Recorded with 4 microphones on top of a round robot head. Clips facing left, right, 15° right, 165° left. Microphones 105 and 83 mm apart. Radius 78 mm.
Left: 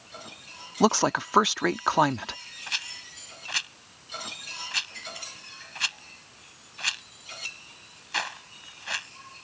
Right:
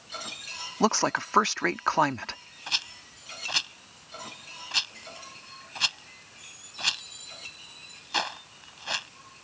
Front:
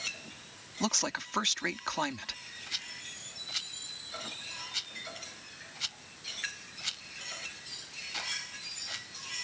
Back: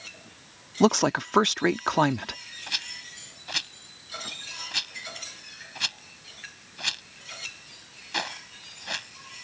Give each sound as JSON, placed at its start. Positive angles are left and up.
{"t": 0.8, "sound": "a woman speaking", "azimuth_deg": 165}
{"t": 2.7, "sound": "a rattle", "azimuth_deg": -155}